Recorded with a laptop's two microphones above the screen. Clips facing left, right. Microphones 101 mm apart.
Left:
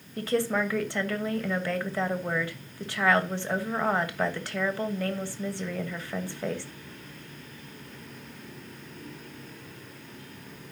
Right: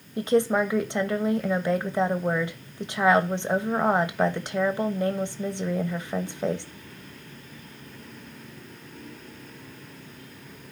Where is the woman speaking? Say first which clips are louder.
Right 5 dB; 20° right (ahead or behind), 1.2 m.